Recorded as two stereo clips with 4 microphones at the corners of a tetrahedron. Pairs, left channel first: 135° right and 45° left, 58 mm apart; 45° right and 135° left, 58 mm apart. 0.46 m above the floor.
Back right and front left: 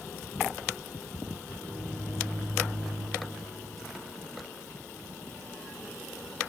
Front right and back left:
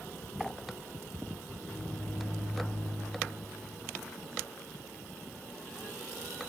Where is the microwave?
50° right, 2 m.